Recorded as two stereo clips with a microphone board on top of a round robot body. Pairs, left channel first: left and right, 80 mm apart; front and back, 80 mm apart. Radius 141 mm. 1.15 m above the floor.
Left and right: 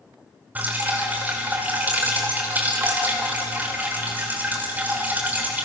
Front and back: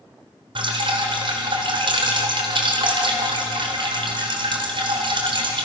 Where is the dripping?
160° right, 3 m.